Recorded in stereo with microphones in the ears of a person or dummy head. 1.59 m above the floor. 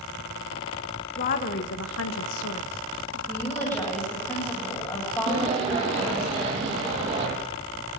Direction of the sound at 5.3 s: 35° right (ahead or behind).